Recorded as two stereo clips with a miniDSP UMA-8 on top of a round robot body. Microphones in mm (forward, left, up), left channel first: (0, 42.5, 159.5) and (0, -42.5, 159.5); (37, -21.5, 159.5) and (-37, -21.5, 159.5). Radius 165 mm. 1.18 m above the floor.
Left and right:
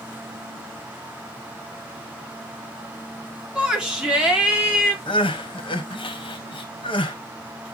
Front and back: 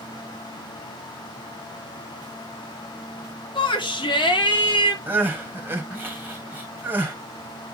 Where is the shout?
10° right, 3 m.